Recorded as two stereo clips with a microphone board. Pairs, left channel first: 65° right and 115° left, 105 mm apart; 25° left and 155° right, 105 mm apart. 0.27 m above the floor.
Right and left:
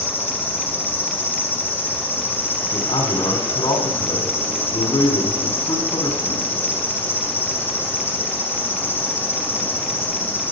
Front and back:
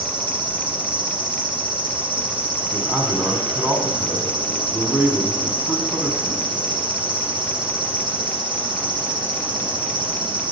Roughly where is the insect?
Behind right.